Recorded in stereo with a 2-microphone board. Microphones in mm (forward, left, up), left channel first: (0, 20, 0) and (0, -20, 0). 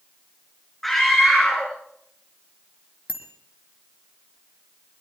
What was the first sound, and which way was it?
A scream, 5° left (ahead or behind).